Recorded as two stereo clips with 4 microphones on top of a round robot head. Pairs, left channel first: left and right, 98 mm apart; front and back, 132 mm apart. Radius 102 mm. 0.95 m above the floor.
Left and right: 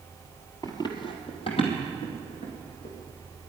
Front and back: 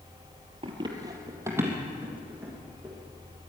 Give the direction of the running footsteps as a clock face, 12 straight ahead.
7 o'clock.